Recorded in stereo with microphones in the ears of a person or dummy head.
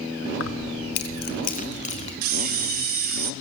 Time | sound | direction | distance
0.4 | keys jangling | 75° left (ahead or behind) | 1.1 m
2.2 | a camera shutter | 45° right (ahead or behind) | 1.3 m